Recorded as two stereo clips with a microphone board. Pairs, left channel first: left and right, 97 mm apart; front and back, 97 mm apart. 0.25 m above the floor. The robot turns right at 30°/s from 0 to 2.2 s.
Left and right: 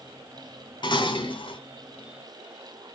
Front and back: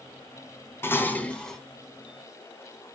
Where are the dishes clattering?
60° left, 1.2 m; by 1.6 s 85° left, 1.2 m.